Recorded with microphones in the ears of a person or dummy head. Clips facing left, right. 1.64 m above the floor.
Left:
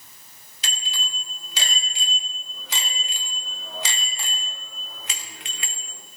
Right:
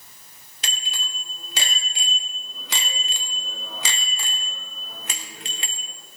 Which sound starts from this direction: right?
A bicycle bell, at 0.6 s.